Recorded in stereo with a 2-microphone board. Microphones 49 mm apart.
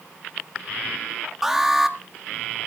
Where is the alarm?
5° right (ahead or behind), 1.3 m.